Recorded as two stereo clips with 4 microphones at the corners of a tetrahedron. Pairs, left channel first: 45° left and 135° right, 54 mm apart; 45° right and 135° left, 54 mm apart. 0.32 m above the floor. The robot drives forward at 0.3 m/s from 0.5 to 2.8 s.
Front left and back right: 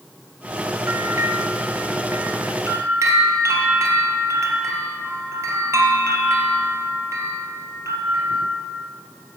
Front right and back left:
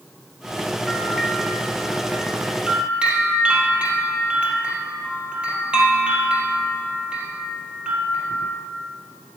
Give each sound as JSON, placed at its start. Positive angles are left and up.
{"t": 0.9, "sound": "a bell", "azimuth_deg": -145, "distance_m": 1.2}